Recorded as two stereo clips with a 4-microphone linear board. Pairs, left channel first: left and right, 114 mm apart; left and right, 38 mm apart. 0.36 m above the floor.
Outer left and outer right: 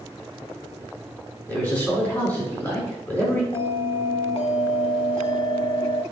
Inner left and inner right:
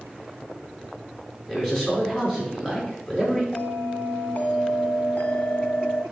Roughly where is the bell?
Left.